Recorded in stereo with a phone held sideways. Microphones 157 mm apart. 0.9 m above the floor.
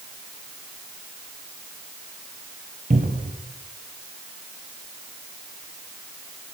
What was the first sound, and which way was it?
A cupboard door, 55° right (ahead or behind).